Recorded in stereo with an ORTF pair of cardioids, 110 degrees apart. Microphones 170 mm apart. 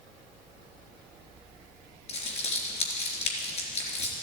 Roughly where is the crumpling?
Ahead left.